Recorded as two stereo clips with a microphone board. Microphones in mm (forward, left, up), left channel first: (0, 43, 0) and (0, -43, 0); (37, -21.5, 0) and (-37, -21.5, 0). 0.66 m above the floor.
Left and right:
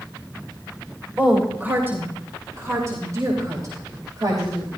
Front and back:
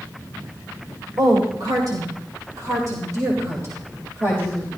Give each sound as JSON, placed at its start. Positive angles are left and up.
{"t": 1.2, "sound": "a woman speaking", "azimuth_deg": -165, "distance_m": 2.5}